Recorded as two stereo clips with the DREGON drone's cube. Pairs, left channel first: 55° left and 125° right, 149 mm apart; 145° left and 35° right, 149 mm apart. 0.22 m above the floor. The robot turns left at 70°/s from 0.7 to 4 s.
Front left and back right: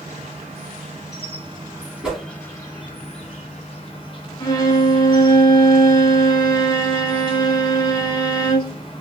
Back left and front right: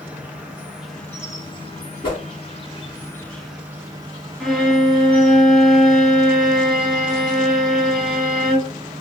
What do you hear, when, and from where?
0.0 s an insect: 110° right, 1.0 m; by 9.0 s 15° left, 1.0 m
2.0 s a whoosh: 155° left, 1.2 m; by 2.2 s 145° left, 1.2 m
4.4 s a violin: 60° left, 0.6 m